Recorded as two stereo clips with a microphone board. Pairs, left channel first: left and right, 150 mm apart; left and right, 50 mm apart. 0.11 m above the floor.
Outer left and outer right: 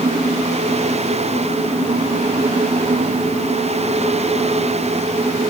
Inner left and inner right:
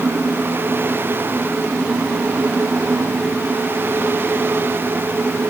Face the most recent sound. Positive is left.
No sound to turn to.